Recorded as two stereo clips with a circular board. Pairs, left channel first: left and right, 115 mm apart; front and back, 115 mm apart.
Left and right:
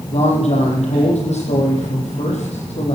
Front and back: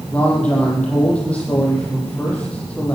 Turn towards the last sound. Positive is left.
turn(degrees=80)